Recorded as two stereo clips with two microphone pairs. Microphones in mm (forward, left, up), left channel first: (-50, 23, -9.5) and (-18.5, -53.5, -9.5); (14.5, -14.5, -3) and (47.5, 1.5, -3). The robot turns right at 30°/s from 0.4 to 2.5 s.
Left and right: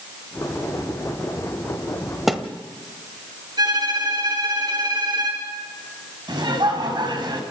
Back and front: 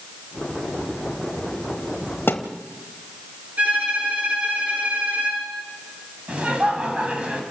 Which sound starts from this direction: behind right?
A thud, at 2.3 s.